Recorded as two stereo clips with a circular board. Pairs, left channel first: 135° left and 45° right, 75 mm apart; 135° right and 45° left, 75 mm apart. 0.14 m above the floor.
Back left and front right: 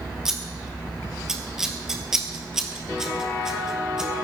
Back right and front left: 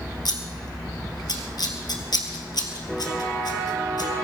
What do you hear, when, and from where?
0.2 s scissors: 125° right, 2.5 m